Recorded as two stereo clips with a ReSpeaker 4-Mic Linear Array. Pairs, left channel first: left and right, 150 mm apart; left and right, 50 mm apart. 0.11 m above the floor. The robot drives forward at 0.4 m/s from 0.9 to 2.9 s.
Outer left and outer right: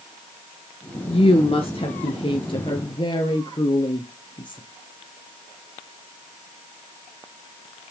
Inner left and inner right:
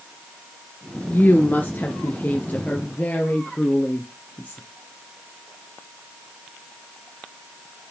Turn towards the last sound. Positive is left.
turn(degrees=35)  # may be behind; listen again after turning